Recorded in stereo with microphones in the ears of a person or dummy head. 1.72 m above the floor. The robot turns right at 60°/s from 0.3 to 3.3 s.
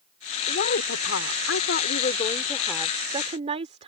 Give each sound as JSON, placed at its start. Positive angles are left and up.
{"t": 0.5, "sound": "a woman speaking", "azimuth_deg": 50}